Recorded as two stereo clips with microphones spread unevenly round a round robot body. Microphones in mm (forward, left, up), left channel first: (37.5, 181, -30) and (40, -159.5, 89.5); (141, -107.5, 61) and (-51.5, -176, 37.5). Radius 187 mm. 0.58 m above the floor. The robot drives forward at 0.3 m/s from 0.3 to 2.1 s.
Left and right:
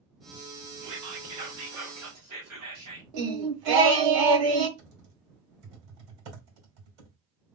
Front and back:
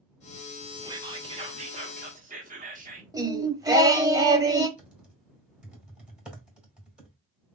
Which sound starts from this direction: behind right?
Whispering, at 0.8 s.